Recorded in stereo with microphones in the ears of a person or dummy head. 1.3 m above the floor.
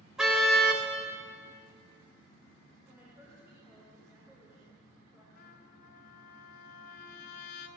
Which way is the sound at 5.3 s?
60° left (ahead or behind).